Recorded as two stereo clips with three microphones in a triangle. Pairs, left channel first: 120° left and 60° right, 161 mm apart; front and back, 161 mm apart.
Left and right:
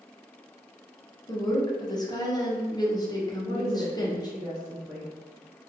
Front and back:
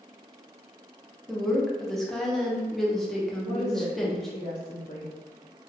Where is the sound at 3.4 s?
30° left, 0.7 m.